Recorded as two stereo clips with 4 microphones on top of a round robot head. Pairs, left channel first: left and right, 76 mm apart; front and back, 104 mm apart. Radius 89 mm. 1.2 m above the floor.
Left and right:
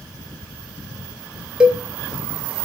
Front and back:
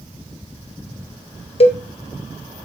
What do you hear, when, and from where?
1.6 s a cowbell: 15° right, 1.3 m